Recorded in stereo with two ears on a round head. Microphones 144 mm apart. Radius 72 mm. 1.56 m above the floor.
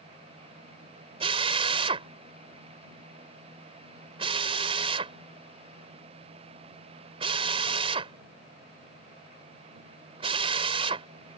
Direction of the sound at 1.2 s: 35° right (ahead or behind).